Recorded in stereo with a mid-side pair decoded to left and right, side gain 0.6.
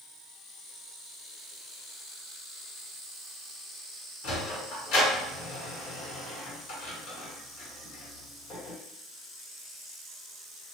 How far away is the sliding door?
About 1.7 m.